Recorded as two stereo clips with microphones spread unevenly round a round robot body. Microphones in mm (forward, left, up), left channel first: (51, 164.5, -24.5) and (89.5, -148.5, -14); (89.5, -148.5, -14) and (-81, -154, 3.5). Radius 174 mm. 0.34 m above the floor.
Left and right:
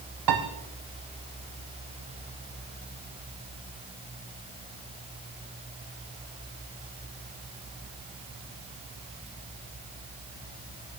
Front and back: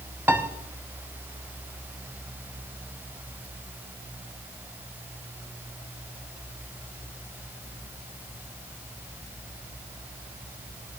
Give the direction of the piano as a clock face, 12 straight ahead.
3 o'clock.